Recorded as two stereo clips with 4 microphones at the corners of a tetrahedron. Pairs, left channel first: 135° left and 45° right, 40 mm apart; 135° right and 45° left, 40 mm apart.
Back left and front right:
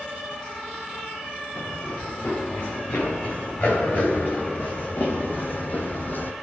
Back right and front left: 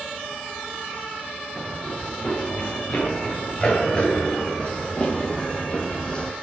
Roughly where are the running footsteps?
Behind.